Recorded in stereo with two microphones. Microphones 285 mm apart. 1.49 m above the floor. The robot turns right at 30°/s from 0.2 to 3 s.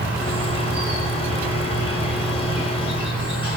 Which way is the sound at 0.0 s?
65° right.